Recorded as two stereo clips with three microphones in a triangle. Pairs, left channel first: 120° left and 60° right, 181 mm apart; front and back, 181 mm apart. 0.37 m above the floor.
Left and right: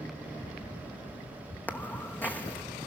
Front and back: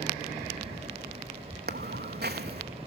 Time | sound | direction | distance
1.7 | footsteps | 160° right | 1.0 m